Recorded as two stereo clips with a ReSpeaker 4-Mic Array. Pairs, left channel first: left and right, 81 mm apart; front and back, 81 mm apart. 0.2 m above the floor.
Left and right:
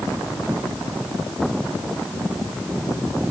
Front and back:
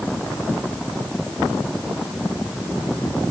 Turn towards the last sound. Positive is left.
No sound to turn to.